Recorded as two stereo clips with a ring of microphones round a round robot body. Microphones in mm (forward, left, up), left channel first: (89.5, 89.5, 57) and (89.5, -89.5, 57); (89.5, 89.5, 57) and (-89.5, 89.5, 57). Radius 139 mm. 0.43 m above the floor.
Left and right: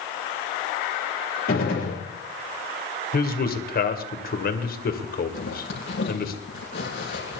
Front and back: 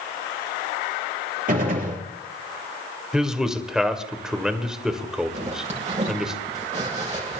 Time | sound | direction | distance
1.5 | a gunshot | 140° left | 6 m
3.1 | a man speaking | 95° left | 2.5 m
5.3 | a zipper | 130° left | 7 m